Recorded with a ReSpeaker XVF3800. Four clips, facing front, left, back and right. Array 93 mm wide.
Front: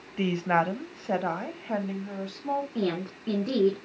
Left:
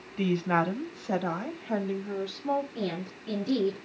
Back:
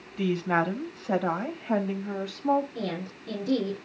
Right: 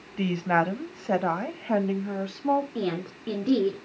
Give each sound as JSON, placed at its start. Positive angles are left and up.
{"t": 0.2, "sound": "a woman speaking", "azimuth_deg": -35, "distance_m": 1.7}
{"t": 2.8, "sound": "a woman speaking", "azimuth_deg": -50, "distance_m": 3.5}